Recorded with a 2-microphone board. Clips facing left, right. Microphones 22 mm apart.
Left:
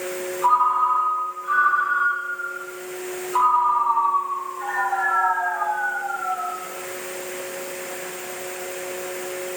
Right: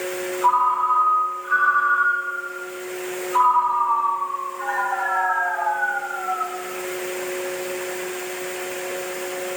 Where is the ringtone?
5° right (ahead or behind), 1.8 m.